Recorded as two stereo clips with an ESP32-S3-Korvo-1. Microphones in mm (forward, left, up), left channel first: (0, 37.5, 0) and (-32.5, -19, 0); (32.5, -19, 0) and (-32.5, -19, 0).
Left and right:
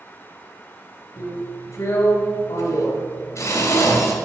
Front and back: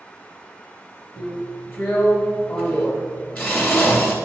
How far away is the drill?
About 2 m.